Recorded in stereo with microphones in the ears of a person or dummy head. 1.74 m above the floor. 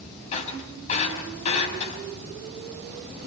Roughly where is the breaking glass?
Left.